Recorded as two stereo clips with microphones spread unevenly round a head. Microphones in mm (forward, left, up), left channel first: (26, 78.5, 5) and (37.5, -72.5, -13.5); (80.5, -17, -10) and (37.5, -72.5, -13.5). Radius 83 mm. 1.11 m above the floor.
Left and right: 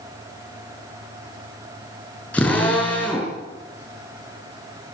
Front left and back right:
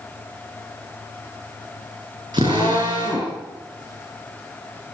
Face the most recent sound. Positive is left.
turn(degrees=175)